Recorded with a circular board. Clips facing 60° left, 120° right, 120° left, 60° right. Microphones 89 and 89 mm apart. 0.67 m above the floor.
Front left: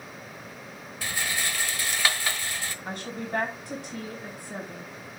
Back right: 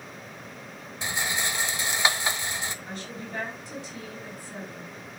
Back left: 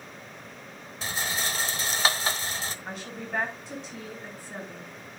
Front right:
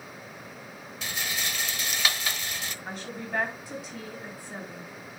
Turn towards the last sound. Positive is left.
turn(degrees=25)